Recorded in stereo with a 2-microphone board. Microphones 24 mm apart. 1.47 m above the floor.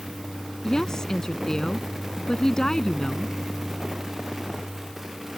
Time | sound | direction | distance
0.6 | a woman speaking | 25° left (ahead or behind) | ?